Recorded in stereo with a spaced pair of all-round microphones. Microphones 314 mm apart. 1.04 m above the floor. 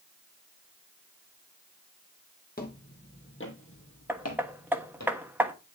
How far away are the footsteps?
About 2 m.